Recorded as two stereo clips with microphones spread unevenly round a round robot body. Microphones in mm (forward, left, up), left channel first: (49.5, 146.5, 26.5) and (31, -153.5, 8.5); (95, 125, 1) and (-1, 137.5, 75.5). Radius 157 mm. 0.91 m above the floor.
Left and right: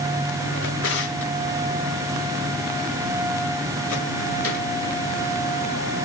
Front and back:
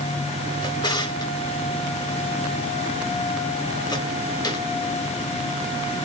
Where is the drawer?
40° left, 5 m.